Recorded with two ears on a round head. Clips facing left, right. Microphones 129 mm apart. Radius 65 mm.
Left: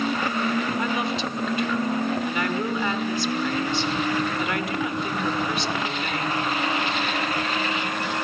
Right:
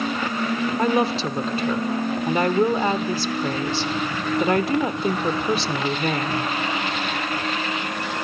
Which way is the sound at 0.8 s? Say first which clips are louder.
Right 5 dB; 30° right (ahead or behind).